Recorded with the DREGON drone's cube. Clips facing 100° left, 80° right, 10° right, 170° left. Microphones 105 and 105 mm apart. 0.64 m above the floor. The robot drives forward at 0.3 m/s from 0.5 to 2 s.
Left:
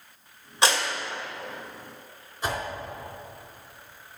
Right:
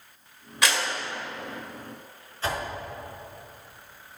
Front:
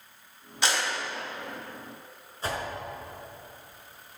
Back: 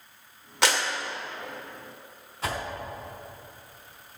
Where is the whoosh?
175° left, 4 m.